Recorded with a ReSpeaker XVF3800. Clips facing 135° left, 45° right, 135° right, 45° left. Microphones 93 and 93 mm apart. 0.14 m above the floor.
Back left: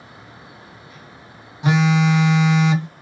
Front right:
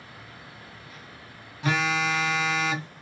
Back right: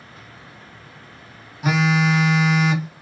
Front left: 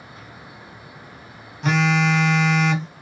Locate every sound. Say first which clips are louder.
1.6 s a phone buzzing: back left 8 dB, even; 155° left, 0.7 m